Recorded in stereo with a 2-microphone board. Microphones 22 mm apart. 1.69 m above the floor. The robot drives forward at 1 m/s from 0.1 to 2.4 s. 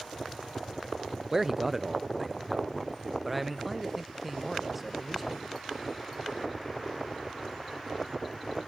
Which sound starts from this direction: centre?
A man speaking, at 1.3 s.